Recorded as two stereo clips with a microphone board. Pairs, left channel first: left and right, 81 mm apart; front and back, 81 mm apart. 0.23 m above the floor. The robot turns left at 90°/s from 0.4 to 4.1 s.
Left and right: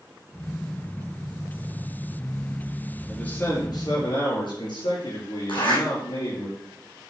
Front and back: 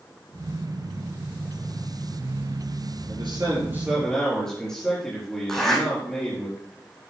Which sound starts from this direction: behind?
A man speaking, at 3.1 s.